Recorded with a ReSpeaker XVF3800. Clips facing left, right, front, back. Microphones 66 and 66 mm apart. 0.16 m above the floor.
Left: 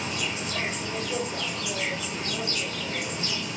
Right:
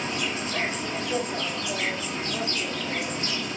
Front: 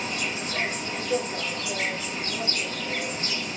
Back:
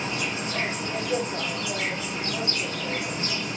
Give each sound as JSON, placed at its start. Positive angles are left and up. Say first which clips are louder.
{"t": 0.0, "sound": "an insect", "louder": "right 2 dB, back 1 dB", "azimuth_deg": -145, "distance_m": 1.6}